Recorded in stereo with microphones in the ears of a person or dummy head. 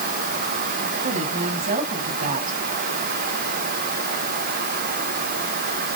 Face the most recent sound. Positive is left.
turn(degrees=-45)  # may be behind; listen again after turning